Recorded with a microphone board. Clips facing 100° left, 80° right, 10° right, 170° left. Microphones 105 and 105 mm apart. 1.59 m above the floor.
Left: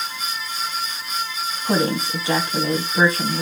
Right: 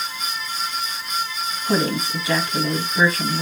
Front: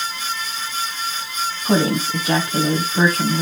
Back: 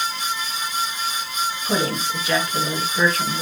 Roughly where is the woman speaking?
Ahead left.